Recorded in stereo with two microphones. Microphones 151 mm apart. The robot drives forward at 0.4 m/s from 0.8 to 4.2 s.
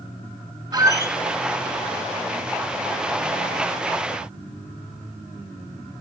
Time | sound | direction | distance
0.7 | a squeak | 25° right (ahead or behind) | 0.6 m